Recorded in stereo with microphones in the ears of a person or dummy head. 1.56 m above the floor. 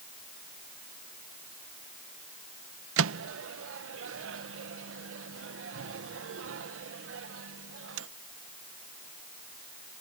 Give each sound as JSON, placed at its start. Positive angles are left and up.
{"t": 3.0, "sound": "a microwave", "side_deg": -85}